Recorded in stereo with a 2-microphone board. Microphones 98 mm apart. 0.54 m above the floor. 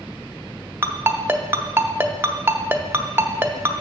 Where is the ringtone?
20° right (ahead or behind), 0.7 m.